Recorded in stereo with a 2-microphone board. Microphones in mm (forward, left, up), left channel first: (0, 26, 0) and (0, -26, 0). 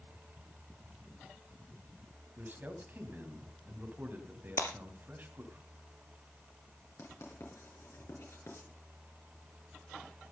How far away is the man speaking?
About 2.5 m.